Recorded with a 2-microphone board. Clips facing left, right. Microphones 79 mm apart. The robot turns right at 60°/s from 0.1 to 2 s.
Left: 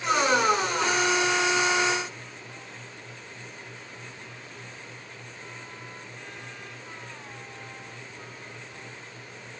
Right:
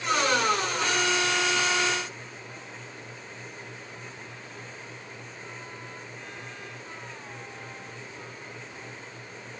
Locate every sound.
Only background noise.